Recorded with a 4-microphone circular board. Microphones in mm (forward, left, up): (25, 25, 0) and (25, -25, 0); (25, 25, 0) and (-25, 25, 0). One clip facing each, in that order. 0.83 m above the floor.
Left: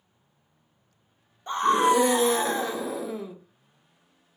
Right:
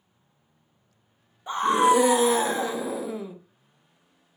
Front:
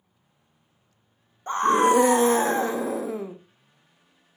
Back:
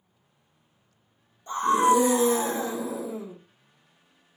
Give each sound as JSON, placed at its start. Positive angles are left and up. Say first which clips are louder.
{"t": 1.5, "sound": "a scream", "louder": "right 1 dB, front 2 dB", "azimuth_deg": -5, "distance_m": 0.5}